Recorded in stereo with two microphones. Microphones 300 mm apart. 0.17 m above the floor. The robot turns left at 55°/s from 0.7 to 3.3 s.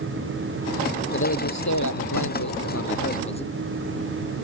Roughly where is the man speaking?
Behind left.